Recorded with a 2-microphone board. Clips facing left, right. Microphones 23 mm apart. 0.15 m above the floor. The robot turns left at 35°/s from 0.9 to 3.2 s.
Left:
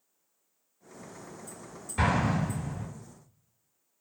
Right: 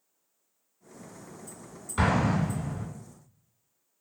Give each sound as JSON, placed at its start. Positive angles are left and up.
{"t": 2.0, "sound": "an explosion", "azimuth_deg": -75, "distance_m": 1.8}